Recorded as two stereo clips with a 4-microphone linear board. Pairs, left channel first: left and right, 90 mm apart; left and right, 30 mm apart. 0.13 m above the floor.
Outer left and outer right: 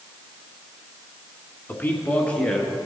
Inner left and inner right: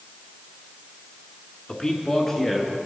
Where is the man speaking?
25° left (ahead or behind), 1.3 m; by 2.7 s 10° left (ahead or behind), 1.8 m.